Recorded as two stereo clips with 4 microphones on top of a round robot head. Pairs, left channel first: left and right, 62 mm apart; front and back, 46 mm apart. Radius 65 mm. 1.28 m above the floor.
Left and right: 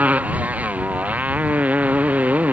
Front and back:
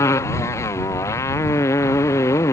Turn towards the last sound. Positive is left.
turn(degrees=-20)